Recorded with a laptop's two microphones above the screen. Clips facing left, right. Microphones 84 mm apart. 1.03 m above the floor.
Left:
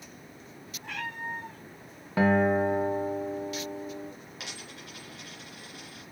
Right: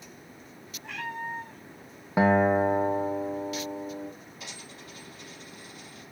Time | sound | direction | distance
0.8 | a cat meowing | 50° left (ahead or behind) | 4 m
2.2 | a guitar | 20° right (ahead or behind) | 0.7 m
4.4 | a dropped coin | 70° left (ahead or behind) | 3 m